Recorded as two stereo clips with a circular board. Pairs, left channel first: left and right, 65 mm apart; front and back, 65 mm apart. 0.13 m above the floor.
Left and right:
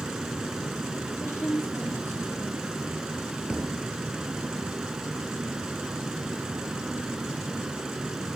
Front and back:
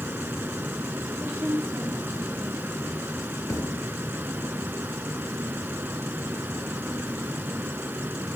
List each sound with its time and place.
0.0 s running water: 160° right, 0.8 m
1.2 s a woman speaking: 135° left, 4 m
3.5 s a thud: 15° right, 0.7 m